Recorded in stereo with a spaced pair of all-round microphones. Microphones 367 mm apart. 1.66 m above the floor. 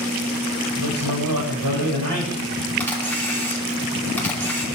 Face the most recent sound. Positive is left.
turn(degrees=5)  # may be behind; listen again after turning